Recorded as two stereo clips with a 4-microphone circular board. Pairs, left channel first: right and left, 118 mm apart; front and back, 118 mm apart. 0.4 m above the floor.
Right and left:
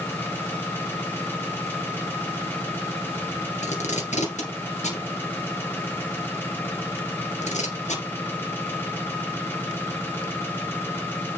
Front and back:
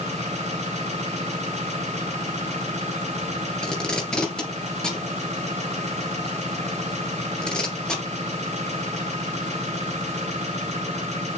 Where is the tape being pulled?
85° right, 3 m.